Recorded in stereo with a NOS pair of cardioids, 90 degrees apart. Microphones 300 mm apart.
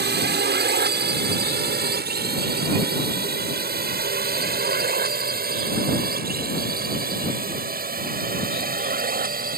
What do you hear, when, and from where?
0.0 s a drone: 35° right; by 9.6 s 30° right